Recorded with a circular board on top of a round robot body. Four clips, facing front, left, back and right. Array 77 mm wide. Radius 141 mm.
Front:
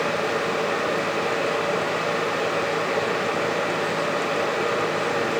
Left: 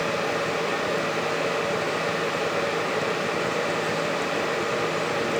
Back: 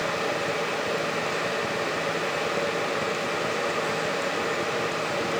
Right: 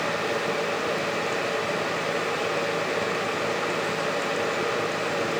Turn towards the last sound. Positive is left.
No sound to turn to.